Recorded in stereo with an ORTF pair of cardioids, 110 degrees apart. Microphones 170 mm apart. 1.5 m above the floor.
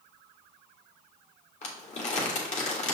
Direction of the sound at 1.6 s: 45° left.